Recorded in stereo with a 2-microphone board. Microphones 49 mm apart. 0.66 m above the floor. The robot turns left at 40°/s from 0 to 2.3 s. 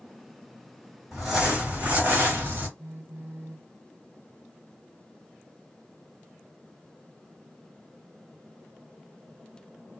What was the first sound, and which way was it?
Crumpling, 5° right.